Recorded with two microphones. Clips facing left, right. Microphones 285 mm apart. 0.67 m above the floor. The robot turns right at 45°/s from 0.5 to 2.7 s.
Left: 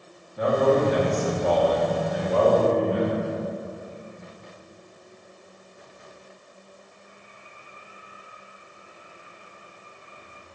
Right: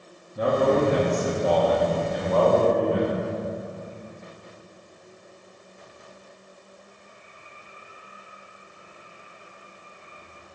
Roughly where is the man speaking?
Ahead right.